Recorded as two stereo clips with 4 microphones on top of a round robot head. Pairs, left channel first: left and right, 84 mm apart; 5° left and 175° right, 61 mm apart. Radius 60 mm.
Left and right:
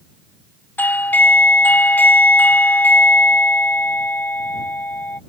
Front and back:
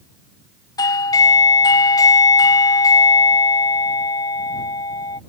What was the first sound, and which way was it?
A doorbell, 20° left.